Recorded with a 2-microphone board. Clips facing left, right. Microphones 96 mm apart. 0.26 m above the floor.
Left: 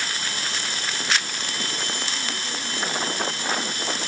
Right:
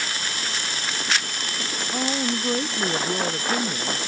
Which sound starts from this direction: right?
A woman speaking, at 1.9 s.